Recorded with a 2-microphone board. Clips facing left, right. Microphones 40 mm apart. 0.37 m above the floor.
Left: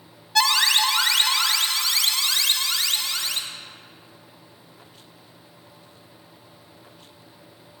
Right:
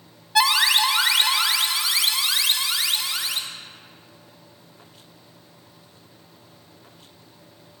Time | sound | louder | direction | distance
0.3 | an alarm | right 1 dB | 10° right (ahead or behind) | 0.5 m